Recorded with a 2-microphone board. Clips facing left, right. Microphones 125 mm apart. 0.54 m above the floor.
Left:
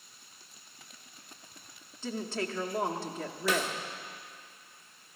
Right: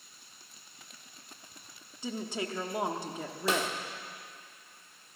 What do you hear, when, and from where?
2.0 s a woman speaking: 15° right (ahead or behind), 0.8 m
3.5 s a snare drum: 30° right (ahead or behind), 1.1 m